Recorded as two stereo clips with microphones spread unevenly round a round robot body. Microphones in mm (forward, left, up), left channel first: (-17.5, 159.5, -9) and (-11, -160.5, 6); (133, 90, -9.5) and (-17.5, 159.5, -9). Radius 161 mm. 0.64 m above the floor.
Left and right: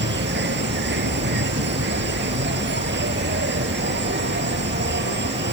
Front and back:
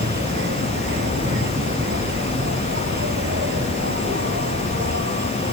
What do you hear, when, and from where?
0.0 s an insect: 145° right